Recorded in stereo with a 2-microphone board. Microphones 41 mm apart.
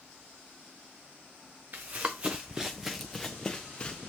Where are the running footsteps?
45° right (ahead or behind), 1.2 m; by 4.0 s 25° left (ahead or behind), 1.4 m.